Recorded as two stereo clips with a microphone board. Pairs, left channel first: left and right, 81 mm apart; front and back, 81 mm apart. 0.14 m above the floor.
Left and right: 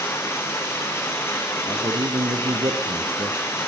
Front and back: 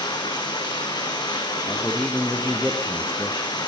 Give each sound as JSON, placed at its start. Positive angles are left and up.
{"t": 0.0, "sound": "running water", "azimuth_deg": 30, "distance_m": 4.0}
{"t": 1.7, "sound": "a man speaking", "azimuth_deg": -85, "distance_m": 3.0}